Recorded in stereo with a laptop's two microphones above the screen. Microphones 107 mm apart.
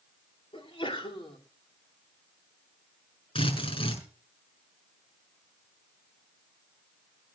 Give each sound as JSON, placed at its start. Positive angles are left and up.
{"t": 0.5, "sound": "a sneeze", "side_deg": 55, "distance_m": 2.5}
{"t": 3.4, "sound": "a drill", "side_deg": 55, "distance_m": 6.5}